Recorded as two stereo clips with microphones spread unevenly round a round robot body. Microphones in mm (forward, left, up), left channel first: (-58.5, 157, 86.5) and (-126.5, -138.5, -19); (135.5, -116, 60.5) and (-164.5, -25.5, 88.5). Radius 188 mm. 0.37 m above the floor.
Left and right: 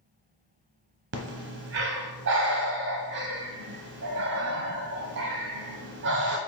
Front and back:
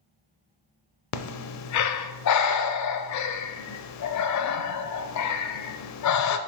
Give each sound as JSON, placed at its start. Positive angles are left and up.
{"t": 1.1, "sound": "breathing", "azimuth_deg": -50, "distance_m": 0.6}